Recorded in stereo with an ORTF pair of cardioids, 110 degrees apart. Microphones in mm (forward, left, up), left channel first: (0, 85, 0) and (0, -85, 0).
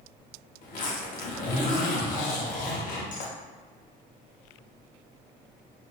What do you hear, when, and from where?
0.6 s a zipper: 50° left, 1.4 m